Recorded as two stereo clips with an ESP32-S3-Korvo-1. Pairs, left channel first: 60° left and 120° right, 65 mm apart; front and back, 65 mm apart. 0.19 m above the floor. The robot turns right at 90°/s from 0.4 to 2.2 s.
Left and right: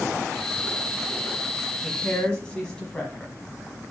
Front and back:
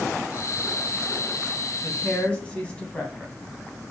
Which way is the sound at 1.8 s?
15° right.